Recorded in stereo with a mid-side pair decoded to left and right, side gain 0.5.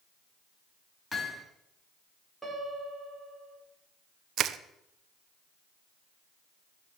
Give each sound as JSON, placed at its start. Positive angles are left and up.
{"t": 1.1, "sound": "hammering", "azimuth_deg": 20, "distance_m": 4.5}
{"t": 2.4, "sound": "a piano", "azimuth_deg": -10, "distance_m": 4.5}
{"t": 4.4, "sound": "crushing", "azimuth_deg": -60, "distance_m": 0.9}